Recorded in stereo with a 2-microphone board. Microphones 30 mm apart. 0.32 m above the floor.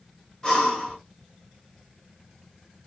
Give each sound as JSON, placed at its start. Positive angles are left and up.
{"t": 0.4, "sound": "breathing", "side_deg": 25, "distance_m": 1.5}